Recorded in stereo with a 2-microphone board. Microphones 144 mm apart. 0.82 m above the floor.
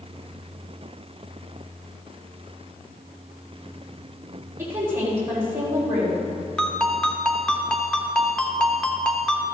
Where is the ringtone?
5° left (ahead or behind), 1.1 m.